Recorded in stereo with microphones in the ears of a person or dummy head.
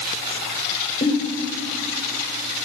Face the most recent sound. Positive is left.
turn(degrees=30)  # may be behind; listen again after turning